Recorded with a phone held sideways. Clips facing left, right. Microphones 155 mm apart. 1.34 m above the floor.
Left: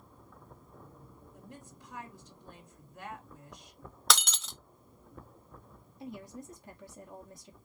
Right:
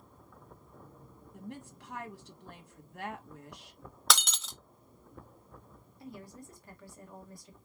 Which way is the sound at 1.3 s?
75° right (ahead or behind).